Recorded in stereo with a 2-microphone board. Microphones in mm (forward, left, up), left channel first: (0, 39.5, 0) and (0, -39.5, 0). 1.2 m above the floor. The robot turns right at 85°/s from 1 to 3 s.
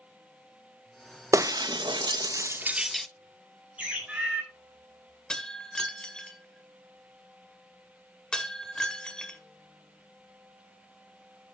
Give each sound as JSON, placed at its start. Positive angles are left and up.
{"t": 1.3, "sound": "breaking glass", "side_deg": -40, "distance_m": 0.7}
{"t": 3.8, "sound": "a bird", "side_deg": -15, "distance_m": 4.5}
{"t": 5.3, "sound": "breaking glass", "side_deg": 10, "distance_m": 1.8}